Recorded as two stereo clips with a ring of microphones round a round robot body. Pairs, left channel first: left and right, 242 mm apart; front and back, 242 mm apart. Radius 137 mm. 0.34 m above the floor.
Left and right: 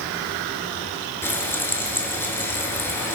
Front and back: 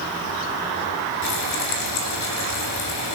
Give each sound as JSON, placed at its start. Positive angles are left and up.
{"t": 1.2, "sound": "frying", "azimuth_deg": 10, "distance_m": 7.0}